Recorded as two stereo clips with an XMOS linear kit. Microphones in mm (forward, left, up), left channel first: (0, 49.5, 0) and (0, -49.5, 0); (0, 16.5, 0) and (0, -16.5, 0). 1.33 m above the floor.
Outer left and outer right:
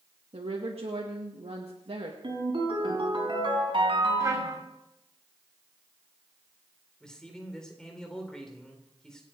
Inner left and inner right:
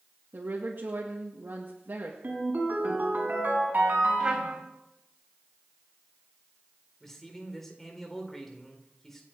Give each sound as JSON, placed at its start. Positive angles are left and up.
{"t": 0.3, "sound": "a woman speaking", "side_deg": -80, "distance_m": 2.0}
{"t": 2.2, "sound": "a ringtone", "side_deg": -55, "distance_m": 5.0}
{"t": 4.2, "sound": "a trumpet", "side_deg": -30, "distance_m": 3.0}
{"t": 7.0, "sound": "a man speaking", "side_deg": 5, "distance_m": 4.0}